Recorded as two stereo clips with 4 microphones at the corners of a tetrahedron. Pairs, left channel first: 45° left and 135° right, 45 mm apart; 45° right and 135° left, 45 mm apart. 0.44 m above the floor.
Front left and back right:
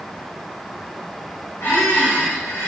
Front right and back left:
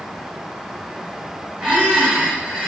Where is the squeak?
65° left, 1.2 m.